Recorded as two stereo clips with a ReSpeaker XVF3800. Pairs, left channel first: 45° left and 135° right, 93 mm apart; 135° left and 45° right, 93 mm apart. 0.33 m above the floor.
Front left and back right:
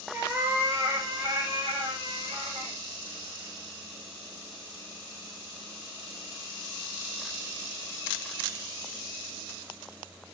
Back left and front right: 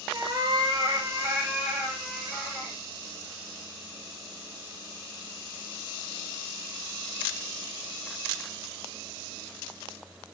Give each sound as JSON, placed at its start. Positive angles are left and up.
{"t": 0.1, "sound": "a cat meowing", "azimuth_deg": -60, "distance_m": 1.1}